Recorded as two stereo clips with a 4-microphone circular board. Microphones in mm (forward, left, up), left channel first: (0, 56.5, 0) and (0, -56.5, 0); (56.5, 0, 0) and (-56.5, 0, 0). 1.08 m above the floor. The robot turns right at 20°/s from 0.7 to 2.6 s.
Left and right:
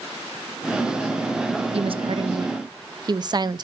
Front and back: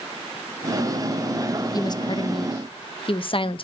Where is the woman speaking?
55° right, 0.6 m; by 3.6 s 40° right, 0.6 m.